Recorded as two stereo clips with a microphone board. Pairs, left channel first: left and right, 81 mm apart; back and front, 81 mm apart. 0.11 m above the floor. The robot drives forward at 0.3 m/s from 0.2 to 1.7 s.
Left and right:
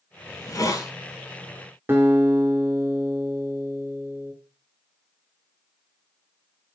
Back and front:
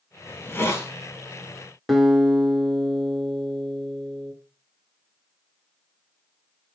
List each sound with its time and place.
0.3 s a hiss: 120° left, 0.7 m; by 0.9 s 130° left, 0.8 m
1.9 s a guitar: 90° right, 0.9 m